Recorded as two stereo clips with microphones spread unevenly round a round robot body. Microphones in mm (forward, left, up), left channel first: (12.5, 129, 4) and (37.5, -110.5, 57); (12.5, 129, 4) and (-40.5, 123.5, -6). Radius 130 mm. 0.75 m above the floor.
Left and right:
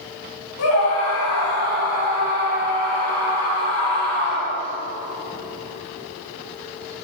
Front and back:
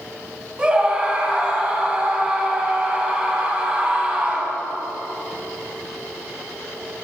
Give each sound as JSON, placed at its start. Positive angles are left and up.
{"t": 0.6, "sound": "a scream", "azimuth_deg": 115, "distance_m": 5.0}